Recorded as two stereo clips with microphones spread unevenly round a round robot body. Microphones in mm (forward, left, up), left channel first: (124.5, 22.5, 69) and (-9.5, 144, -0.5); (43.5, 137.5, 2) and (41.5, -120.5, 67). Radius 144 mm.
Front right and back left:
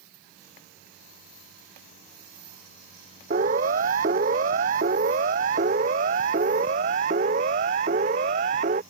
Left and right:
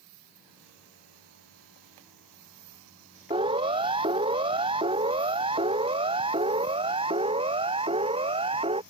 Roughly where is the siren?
Behind.